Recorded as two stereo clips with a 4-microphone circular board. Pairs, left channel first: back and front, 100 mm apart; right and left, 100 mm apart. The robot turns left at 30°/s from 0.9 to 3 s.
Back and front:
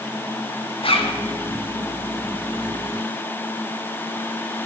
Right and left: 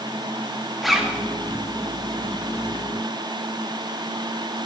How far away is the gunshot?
I don't hear a gunshot.